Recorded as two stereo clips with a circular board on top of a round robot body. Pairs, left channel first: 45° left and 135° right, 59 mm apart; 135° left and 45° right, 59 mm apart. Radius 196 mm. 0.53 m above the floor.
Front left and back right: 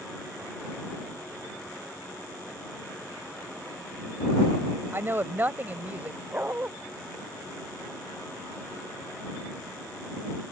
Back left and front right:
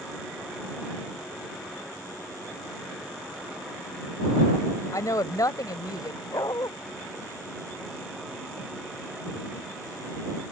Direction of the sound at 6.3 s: 160° left.